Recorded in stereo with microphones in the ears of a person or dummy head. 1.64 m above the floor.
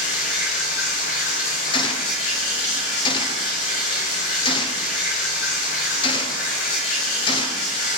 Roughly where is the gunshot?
Left.